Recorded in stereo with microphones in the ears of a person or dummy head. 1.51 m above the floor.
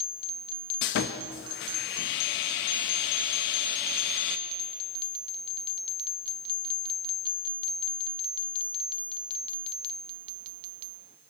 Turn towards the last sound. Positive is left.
turn(degrees=45)  # may be behind; listen again after turning